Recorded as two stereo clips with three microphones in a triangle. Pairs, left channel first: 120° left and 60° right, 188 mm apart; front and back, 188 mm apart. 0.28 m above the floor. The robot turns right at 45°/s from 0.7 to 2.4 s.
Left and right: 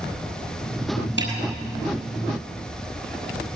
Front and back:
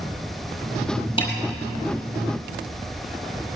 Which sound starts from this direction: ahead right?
A snare drum, at 1.2 s.